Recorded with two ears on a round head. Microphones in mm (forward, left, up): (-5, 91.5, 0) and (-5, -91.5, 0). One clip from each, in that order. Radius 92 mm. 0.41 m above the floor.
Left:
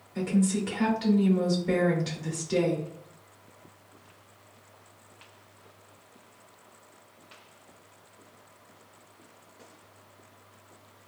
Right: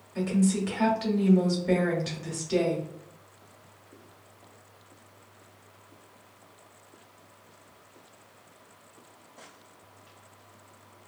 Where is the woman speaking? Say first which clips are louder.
Right 1 dB; 5° right (ahead or behind), 1.0 m.